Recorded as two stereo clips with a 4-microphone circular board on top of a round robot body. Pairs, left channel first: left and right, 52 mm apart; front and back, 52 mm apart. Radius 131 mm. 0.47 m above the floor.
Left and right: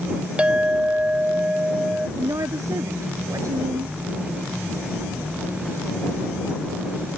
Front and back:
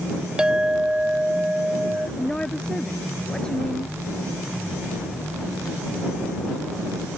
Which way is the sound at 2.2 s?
75° right.